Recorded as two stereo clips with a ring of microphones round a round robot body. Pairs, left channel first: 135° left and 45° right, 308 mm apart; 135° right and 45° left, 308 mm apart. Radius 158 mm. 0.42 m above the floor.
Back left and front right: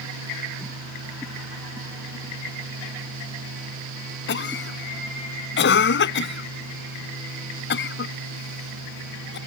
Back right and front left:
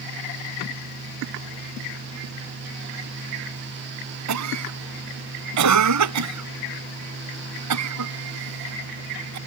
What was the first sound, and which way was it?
A cough, 80° left.